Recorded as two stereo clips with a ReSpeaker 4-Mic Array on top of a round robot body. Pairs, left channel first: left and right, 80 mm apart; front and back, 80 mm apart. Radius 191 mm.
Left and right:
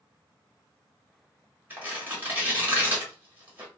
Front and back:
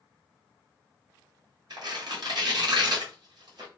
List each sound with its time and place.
1.7 s tearing paper: 155° right, 1.7 m